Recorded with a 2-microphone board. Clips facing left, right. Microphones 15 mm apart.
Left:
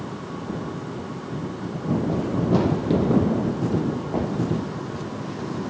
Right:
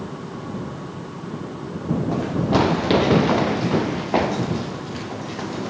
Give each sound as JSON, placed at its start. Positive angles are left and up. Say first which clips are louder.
{"t": 2.1, "sound": "running footsteps", "louder": "right 3 dB", "side_deg": -25}